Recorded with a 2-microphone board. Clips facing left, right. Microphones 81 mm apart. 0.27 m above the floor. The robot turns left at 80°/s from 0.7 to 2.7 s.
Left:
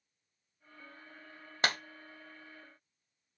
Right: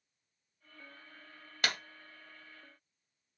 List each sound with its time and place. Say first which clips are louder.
1.6 s a clap: left 3 dB; 30° left (ahead or behind), 0.9 m; by 1.8 s 35° left (ahead or behind), 0.9 m